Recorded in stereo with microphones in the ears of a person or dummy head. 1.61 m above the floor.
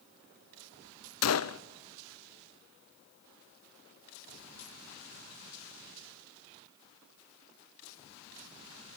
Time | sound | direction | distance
1.2 | a gunshot | 75° left (ahead or behind) | 0.7 m